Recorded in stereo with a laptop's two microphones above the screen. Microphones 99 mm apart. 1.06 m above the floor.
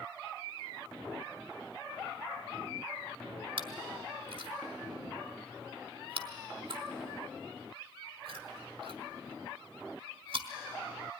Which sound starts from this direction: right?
Chewing, at 3.6 s.